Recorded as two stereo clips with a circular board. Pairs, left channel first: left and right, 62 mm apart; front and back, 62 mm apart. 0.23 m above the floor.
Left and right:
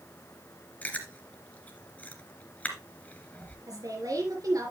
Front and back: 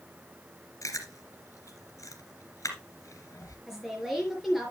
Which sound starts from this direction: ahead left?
Chewing, at 0.8 s.